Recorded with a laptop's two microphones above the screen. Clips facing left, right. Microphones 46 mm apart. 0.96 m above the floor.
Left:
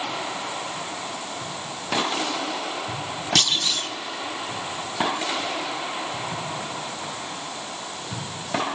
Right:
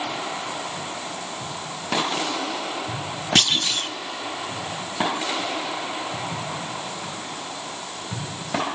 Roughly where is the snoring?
No snoring in this recording.